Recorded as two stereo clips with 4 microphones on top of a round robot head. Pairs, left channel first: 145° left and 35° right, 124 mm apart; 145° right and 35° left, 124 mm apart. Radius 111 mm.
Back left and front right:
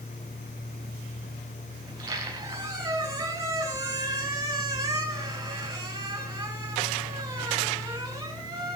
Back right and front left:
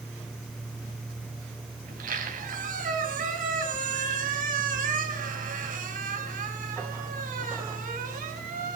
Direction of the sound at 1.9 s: 30° left.